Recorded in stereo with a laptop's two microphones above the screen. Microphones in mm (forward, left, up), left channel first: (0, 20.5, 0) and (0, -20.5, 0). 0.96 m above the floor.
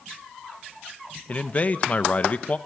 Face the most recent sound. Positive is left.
turn(degrees=35)  # may be behind; listen again after turning